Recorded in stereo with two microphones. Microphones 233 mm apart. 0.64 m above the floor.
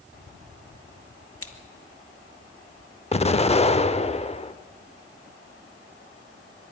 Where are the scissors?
70° left (ahead or behind), 1.7 m.